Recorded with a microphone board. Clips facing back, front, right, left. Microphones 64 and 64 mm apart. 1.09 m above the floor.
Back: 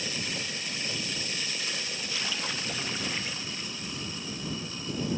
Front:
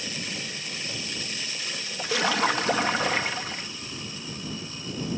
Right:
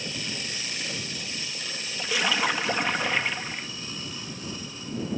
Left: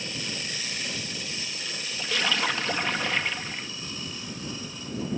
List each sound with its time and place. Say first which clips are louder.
2.0 s a splash: front 15 dB, right 1 dB; 10° right